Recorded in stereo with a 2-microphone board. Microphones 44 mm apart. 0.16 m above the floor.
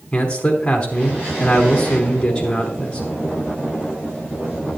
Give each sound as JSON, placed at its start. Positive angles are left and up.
{"t": 0.1, "sound": "a man speaking", "side_deg": 20, "distance_m": 1.2}